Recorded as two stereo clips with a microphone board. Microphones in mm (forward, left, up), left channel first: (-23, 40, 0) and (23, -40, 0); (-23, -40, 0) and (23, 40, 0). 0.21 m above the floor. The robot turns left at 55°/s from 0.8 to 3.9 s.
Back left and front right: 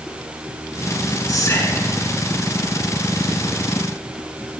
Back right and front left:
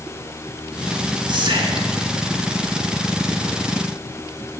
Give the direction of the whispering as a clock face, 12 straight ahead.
9 o'clock.